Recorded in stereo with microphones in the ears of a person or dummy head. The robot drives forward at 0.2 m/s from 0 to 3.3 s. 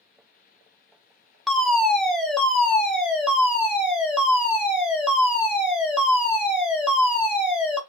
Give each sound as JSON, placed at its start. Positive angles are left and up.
{"t": 1.5, "sound": "a fire alarm", "side_deg": 5, "distance_m": 0.5}